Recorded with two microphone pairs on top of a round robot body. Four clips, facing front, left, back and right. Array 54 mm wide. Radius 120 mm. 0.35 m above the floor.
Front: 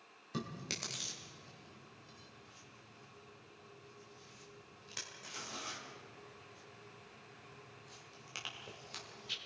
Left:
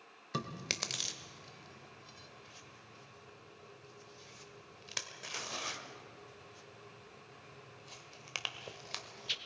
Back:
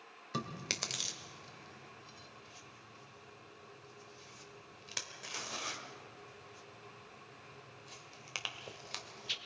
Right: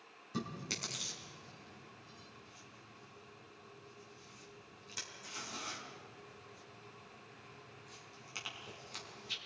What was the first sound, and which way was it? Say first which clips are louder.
Chewing: left 2 dB, back 3 dB; 120° left.